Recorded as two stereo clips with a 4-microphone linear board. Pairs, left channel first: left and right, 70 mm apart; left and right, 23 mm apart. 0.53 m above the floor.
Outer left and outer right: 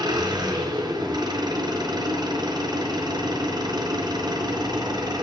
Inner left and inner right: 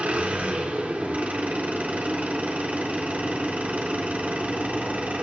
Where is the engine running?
80° right, 4 m.